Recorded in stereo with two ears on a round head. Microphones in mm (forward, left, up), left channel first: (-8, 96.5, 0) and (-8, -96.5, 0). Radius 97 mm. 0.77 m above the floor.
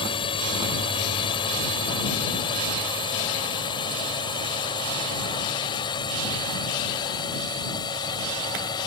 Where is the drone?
25° left (ahead or behind); by 8.9 s 20° left (ahead or behind).